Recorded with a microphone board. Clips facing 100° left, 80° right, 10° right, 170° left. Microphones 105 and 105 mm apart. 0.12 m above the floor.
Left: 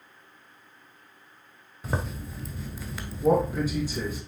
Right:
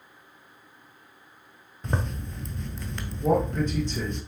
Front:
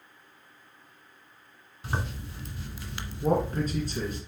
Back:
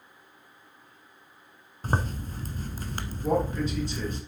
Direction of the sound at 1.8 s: 175° right.